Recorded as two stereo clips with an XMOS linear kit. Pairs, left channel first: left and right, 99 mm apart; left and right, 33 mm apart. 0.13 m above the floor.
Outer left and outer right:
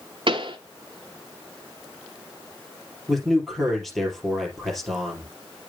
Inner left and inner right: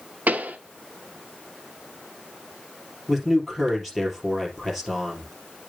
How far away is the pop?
About 0.9 m.